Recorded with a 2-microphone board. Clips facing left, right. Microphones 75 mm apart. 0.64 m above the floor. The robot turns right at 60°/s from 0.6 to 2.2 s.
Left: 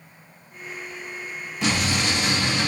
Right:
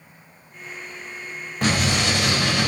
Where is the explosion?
130° right, 1.8 m; by 2.7 s 95° right, 1.8 m.